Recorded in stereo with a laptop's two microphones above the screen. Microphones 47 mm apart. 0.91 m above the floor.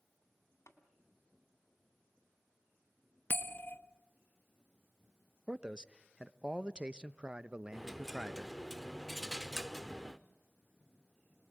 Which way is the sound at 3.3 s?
45° left (ahead or behind).